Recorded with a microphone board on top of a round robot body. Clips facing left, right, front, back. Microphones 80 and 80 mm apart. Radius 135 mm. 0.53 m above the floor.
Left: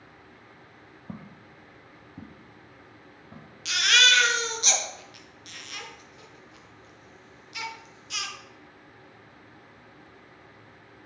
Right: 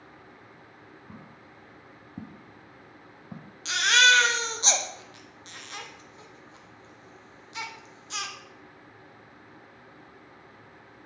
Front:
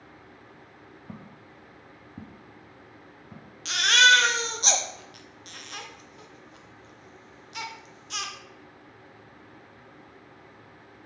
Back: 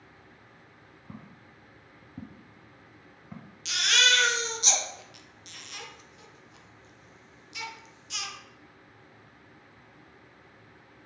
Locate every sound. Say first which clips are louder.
1.1 s footsteps: left 8 dB, front 2 dB; 70° left, 0.7 m; by 3.5 s 105° right, 1.2 m
3.6 s a baby crying: right 3 dB, front 7 dB; 35° right, 1.1 m